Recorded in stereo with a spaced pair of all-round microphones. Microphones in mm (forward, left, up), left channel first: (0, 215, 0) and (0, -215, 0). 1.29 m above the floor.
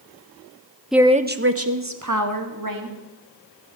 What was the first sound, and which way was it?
A woman speaking, centre (ahead or behind).